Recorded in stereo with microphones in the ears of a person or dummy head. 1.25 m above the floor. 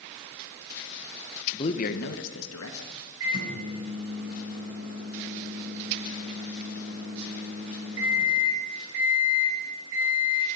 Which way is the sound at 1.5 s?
20° left (ahead or behind).